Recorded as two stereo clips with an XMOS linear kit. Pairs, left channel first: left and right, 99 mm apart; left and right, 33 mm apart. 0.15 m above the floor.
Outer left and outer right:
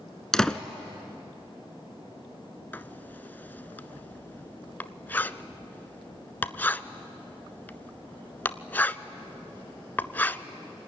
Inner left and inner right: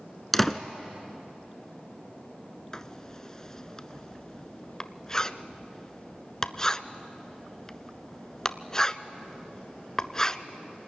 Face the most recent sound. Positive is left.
turn(degrees=20)  # may be behind; listen again after turning